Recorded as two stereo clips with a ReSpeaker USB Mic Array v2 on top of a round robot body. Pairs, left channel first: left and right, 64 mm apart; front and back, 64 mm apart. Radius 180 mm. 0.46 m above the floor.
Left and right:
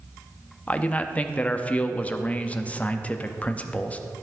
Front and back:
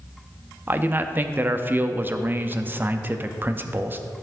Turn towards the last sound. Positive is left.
turn(degrees=145)